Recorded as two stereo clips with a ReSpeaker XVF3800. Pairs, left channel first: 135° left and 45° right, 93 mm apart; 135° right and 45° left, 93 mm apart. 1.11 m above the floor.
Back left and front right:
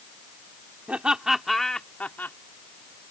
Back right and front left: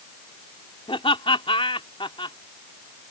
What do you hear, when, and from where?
0.9 s laughter: 120° right; by 2.4 s 160° right